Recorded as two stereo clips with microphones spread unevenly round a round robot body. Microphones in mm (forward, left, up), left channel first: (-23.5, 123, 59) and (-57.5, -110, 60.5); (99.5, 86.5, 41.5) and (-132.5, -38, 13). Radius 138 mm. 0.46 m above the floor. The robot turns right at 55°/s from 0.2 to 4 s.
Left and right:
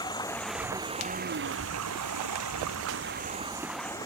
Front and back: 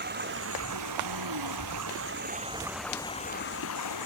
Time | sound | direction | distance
0.0 | running water | 155° left | ?